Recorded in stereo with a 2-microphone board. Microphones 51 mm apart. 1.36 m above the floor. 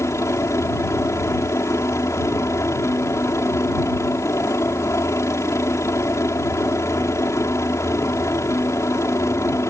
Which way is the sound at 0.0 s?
65° left (ahead or behind).